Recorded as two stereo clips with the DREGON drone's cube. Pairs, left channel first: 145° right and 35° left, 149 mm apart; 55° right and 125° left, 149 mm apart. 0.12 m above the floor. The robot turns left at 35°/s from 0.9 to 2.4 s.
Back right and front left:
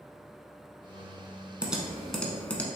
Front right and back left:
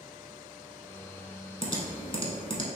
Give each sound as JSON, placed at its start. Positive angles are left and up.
{"t": 1.6, "sound": "typing on a keyboard", "azimuth_deg": -45, "distance_m": 0.8}